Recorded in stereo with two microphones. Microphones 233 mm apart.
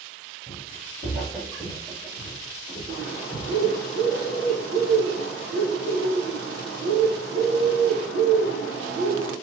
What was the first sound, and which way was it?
Footsteps, 5° right (ahead or behind).